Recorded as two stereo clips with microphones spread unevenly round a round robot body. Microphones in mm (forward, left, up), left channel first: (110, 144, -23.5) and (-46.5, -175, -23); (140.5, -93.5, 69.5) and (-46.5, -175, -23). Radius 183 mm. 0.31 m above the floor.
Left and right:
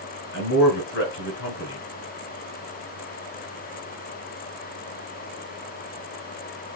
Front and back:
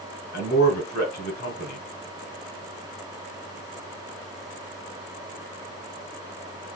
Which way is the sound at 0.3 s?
80° left.